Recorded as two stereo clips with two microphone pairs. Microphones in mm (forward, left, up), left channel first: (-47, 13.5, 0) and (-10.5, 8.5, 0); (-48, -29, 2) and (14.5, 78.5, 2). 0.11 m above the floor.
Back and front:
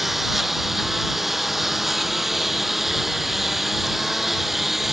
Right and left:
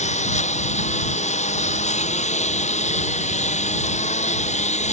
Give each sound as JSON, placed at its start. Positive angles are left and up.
{"t": 0.0, "sound": "a lawn mower", "azimuth_deg": -95}